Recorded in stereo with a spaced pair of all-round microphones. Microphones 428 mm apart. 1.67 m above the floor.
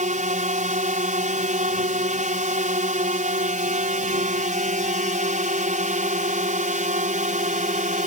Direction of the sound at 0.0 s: 15° right (ahead or behind).